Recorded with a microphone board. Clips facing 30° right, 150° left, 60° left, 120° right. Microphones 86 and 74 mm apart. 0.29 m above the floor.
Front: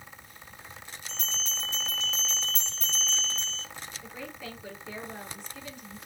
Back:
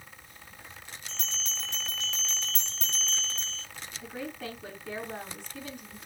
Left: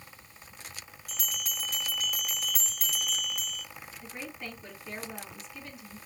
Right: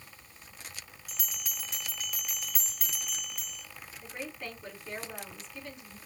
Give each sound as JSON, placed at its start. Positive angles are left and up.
{"t": 1.1, "sound": "a bell", "azimuth_deg": 150, "distance_m": 4.0}
{"t": 4.0, "sound": "a woman speaking", "azimuth_deg": 145, "distance_m": 3.0}